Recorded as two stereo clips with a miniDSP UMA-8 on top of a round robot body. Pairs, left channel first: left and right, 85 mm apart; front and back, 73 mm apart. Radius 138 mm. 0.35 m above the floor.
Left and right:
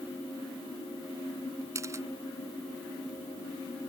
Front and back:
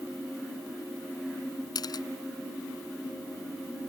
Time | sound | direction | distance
1.8 | a camera shutter | 35° right | ?